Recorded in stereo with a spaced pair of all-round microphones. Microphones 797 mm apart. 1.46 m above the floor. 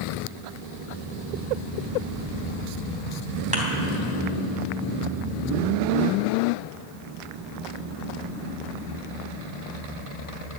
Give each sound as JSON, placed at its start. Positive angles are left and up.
{"t": 3.5, "sound": "a thud", "side_deg": -10, "distance_m": 3.0}